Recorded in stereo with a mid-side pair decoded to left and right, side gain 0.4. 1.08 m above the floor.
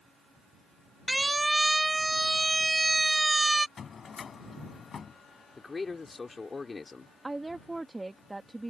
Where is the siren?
10° right; by 3.7 s 15° right.